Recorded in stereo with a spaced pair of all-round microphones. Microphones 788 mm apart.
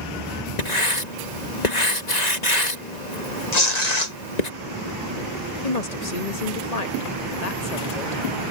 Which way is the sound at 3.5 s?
55° left (ahead or behind).